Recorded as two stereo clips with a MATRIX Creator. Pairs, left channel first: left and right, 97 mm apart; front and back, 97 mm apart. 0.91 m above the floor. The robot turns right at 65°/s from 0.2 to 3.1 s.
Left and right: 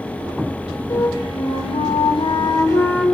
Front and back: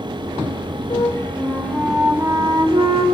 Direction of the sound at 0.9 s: 30° left.